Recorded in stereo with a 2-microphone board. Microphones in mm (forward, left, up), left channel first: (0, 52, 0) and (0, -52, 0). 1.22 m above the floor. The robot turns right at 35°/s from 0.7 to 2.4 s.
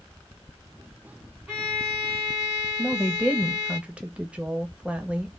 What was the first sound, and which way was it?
A violin, 10° right.